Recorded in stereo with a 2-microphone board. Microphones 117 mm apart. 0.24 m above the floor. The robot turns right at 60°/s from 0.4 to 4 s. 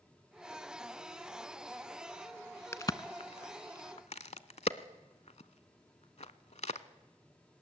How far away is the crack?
About 0.6 m.